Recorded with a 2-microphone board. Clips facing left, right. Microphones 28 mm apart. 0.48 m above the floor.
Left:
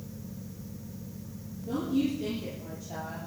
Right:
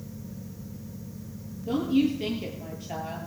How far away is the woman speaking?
About 8.5 m.